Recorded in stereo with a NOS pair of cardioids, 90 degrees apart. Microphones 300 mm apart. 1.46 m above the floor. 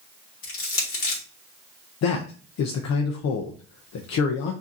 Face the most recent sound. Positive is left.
turn(degrees=65)